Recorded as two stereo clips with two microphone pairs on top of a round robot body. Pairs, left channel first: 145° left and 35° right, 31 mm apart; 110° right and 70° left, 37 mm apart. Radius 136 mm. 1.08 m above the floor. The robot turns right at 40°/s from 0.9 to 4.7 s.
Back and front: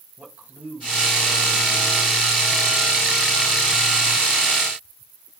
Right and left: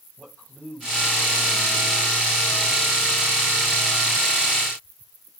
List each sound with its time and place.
0.2 s a man speaking: 65° right, 7 m; by 2.0 s 20° right, 7 m